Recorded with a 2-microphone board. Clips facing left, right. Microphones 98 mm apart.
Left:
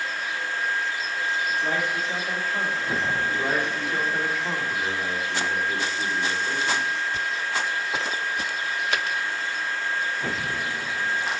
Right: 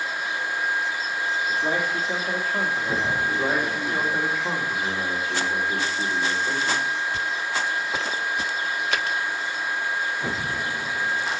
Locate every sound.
1.5 s a man speaking: 15° right (ahead or behind), 1.4 m
3.2 s a man speaking: 10° right (ahead or behind), 1.6 m